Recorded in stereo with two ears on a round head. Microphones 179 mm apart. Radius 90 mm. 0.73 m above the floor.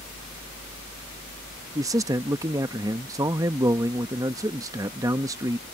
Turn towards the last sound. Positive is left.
turn(degrees=-15)  # may be behind; listen again after turning